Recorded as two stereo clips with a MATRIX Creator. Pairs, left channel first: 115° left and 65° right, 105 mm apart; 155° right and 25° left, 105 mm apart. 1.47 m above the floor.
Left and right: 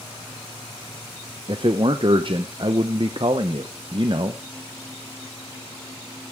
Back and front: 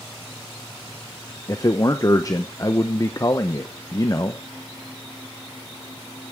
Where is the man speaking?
100° right, 0.9 m.